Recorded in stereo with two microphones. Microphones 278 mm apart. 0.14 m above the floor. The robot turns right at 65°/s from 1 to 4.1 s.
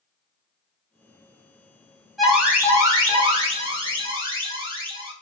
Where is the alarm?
Centre (ahead or behind), 0.8 m; by 5.1 s 20° right (ahead or behind), 0.8 m.